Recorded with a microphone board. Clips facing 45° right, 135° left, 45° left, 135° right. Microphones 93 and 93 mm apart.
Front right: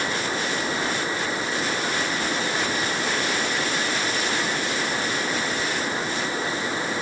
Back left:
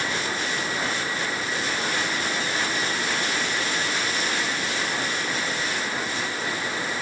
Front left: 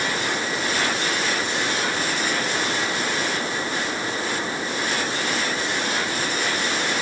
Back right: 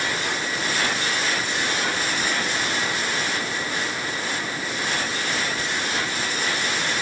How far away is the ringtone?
I don't hear a ringtone.